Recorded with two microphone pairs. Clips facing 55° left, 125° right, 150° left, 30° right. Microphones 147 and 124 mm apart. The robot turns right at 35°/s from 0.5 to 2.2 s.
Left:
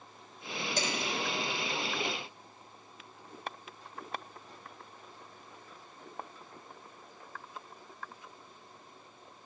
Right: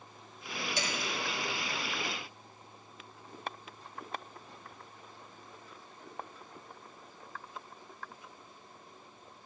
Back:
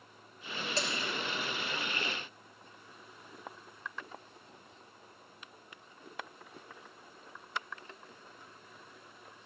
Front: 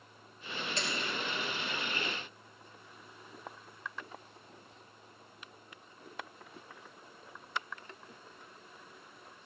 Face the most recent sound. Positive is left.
turn(degrees=145)